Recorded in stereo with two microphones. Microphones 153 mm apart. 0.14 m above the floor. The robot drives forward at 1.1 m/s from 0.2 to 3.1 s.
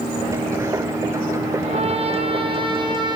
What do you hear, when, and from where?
1.6 s a trumpet: 45° right (ahead or behind), 3 m; by 3.2 s 30° right (ahead or behind), 4 m